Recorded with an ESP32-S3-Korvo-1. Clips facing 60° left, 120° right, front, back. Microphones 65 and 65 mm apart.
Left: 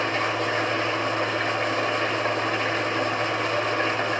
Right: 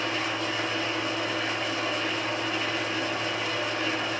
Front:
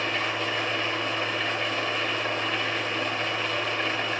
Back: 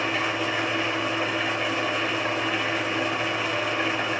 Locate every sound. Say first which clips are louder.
0.0 s an engine running: left 5 dB, back 2 dB; 95° left, 3 m